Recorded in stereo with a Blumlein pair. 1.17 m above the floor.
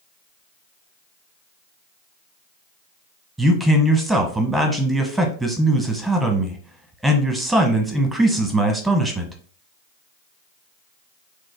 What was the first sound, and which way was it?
A man speaking, 10° right.